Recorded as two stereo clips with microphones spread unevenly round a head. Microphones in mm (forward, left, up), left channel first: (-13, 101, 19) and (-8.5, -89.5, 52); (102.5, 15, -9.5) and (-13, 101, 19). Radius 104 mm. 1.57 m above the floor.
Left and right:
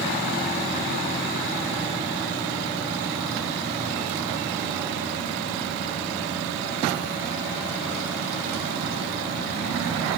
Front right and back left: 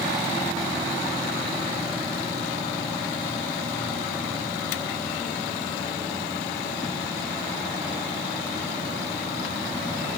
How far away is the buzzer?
No buzzer in this recording.